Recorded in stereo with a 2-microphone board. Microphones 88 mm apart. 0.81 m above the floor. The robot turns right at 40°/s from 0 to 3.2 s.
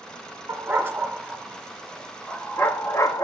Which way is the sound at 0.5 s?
35° right (ahead or behind).